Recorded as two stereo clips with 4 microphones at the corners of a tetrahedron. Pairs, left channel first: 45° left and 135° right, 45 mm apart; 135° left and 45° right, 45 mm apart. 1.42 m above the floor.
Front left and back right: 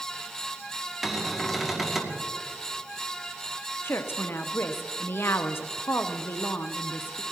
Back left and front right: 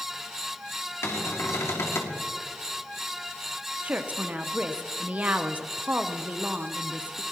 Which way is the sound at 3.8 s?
15° left.